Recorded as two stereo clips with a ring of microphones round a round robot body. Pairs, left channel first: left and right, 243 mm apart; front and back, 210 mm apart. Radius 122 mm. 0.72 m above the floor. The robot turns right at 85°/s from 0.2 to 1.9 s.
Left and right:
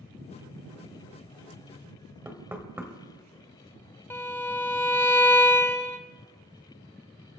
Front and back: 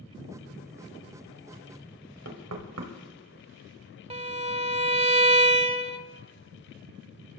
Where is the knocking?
170° right, 2 m.